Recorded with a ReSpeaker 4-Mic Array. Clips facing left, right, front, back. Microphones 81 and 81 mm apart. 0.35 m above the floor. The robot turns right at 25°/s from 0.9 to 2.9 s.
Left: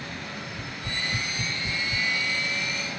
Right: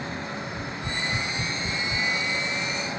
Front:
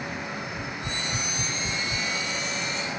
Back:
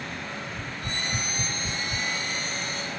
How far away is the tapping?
About 1.8 m.